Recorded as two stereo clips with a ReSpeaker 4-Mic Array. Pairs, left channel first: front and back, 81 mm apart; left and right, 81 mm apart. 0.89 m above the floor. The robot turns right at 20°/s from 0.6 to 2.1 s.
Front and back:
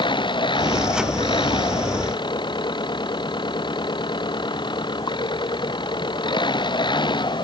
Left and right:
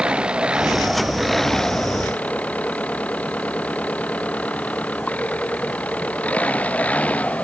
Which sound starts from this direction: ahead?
An engine running, at 0.0 s.